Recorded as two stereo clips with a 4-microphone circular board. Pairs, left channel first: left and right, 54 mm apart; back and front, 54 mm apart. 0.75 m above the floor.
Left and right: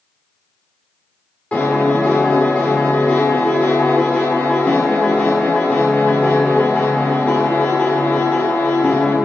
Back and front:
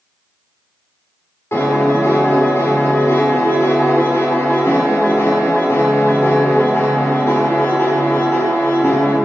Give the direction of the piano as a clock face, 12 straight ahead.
7 o'clock.